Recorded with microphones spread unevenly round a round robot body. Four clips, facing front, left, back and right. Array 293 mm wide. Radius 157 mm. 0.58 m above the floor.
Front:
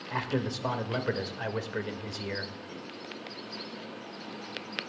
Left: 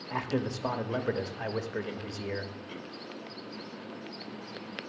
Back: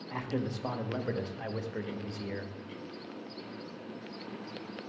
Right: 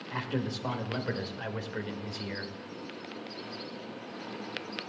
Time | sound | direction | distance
0.1 | a man speaking | 50° left | 1.0 m